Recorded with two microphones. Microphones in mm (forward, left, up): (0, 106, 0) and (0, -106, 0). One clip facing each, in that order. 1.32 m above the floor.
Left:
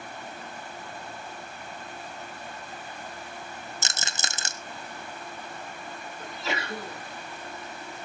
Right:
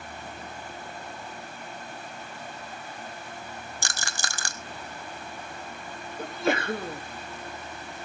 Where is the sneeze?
50° right (ahead or behind), 1.9 m.